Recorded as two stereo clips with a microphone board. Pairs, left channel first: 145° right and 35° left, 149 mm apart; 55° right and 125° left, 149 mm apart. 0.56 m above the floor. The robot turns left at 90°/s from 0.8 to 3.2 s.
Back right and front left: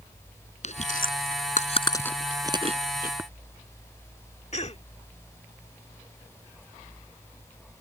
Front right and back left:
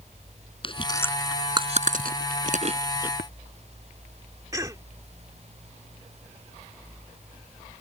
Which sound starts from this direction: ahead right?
Tapping, at 3.2 s.